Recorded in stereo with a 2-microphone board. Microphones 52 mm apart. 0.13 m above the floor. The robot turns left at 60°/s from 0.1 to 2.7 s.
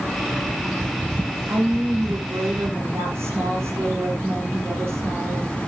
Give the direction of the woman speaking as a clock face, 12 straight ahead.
2 o'clock.